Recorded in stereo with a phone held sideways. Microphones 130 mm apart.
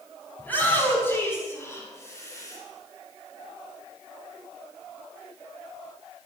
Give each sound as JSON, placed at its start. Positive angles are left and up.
{"t": 0.4, "sound": "a shout", "side_deg": 10, "distance_m": 7.0}